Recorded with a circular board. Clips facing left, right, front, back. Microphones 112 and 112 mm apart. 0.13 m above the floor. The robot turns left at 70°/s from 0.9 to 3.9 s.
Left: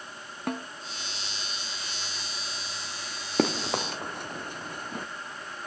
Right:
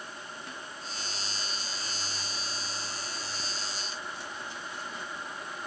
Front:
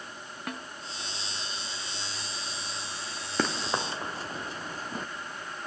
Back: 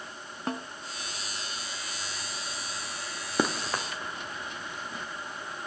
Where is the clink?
I don't hear a clink.